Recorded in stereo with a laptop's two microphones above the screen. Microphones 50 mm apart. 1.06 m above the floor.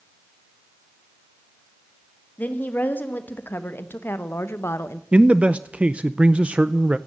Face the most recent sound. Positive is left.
turn(degrees=-25)  # may be behind; listen again after turning